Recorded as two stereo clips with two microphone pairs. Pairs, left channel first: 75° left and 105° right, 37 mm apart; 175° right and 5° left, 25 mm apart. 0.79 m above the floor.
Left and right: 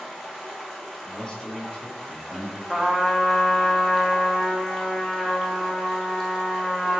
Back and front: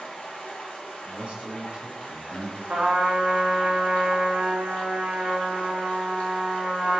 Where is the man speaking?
10° left, 1.0 m.